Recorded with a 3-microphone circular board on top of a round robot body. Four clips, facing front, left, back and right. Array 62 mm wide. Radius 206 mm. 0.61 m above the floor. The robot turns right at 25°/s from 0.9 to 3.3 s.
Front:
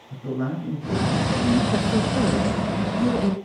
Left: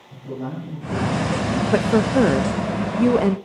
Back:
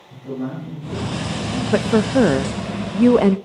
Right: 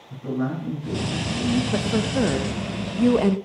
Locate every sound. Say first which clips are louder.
0.1 s a man speaking: right 4 dB, even; 55° right, 10 m; by 1.6 s 40° right, 10 m
1.7 s a woman speaking: left 6 dB, back 6 dB; 135° left, 0.8 m; by 3.4 s 175° left, 0.8 m